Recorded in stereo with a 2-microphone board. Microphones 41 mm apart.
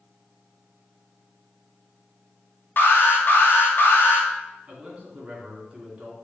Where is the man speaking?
20° right (ahead or behind), 2.5 m.